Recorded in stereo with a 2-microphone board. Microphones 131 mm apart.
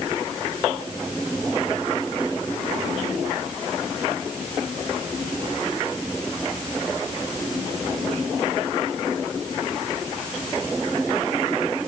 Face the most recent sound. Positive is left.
No sound to turn to.